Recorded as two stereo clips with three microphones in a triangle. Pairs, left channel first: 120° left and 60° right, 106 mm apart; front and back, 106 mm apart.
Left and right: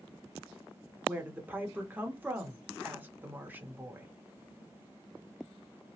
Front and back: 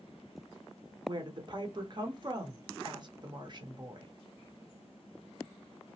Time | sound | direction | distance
1.1 | a woman speaking | 135° right | 0.9 m